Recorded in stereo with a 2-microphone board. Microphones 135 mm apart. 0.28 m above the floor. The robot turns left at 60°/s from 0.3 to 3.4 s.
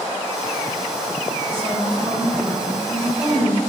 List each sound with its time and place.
1.5 s a woman speaking: 25° right (ahead or behind), 1.6 m; by 3.6 s 25° left (ahead or behind), 1.6 m